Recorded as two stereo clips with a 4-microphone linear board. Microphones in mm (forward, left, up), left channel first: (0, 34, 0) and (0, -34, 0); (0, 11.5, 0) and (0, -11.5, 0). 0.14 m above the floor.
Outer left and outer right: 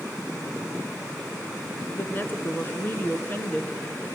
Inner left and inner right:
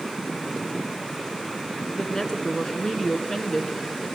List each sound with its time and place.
2.0 s a woman speaking: 30° left (ahead or behind), 1.5 m